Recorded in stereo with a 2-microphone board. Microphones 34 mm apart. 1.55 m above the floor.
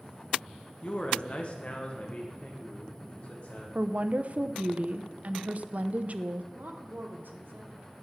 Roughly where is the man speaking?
Left.